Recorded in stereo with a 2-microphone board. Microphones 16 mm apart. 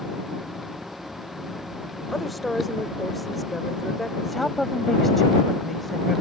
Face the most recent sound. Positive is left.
turn(degrees=10)  # may be behind; listen again after turning